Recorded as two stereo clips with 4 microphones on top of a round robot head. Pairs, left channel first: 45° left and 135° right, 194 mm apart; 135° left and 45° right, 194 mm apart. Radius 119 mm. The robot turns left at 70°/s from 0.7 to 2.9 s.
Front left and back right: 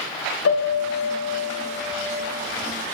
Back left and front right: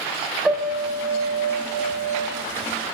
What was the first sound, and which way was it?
A piano, 45° left.